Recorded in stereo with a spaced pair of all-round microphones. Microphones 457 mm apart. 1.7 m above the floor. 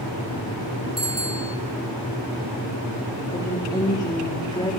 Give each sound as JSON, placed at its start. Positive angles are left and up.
{"t": 1.0, "sound": "a bicycle bell", "side_deg": -30, "distance_m": 3.5}
{"t": 3.3, "sound": "a woman speaking", "side_deg": 10, "distance_m": 4.5}